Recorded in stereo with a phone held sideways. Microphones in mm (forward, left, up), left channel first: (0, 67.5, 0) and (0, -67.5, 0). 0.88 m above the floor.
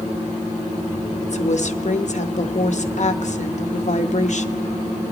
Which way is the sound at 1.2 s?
60° left (ahead or behind).